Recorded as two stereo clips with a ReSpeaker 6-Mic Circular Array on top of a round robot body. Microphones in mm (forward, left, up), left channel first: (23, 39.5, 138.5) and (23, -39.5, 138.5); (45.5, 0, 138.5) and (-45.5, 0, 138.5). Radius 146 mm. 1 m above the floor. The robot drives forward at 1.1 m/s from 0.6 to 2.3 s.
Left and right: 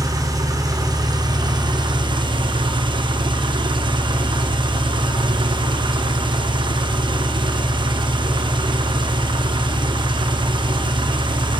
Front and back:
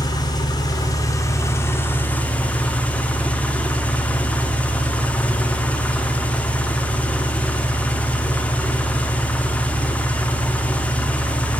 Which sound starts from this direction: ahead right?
An engine running, at 0.0 s.